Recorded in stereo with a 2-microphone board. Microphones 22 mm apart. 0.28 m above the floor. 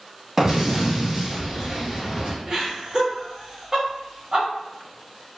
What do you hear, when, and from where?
0.4 s an explosion: 20° right (ahead or behind), 1.0 m
2.5 s laughter: 20° right (ahead or behind), 1.3 m